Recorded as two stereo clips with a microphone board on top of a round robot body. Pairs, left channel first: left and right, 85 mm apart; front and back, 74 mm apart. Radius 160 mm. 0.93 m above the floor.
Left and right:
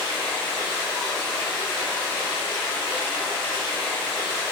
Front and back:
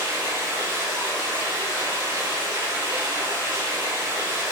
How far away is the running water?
About 7.5 m.